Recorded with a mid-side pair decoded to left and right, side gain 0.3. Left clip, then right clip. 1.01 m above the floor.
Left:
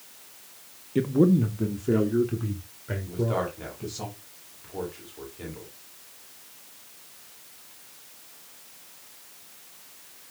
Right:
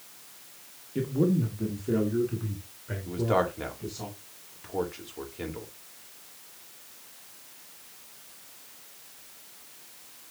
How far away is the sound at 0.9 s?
About 1.0 m.